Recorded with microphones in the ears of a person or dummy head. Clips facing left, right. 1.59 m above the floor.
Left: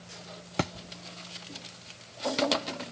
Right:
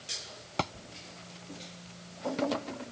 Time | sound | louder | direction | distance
0.6 | a thud | left 3 dB | 20° left (ahead or behind) | ?